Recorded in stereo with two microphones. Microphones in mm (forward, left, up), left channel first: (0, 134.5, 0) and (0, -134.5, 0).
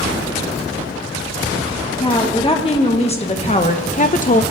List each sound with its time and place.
2.0 s a woman speaking: 20° left (ahead or behind), 1.9 m; by 4.4 s 30° left (ahead or behind), 0.5 m